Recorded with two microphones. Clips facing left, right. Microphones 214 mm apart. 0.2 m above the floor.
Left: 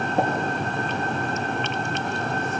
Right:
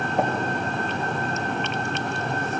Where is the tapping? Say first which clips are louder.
Left 1 dB; 35° left (ahead or behind), 5.5 m.